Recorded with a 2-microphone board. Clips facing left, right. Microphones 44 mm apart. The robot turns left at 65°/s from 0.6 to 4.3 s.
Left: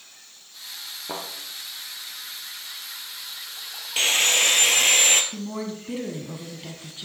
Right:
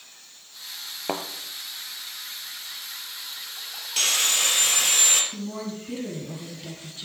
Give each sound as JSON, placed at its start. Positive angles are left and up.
{"t": 1.1, "sound": "a thud", "side_deg": -55, "distance_m": 1.2}
{"t": 4.0, "sound": "sawing", "side_deg": 25, "distance_m": 1.2}
{"t": 5.3, "sound": "a woman speaking", "side_deg": 25, "distance_m": 1.1}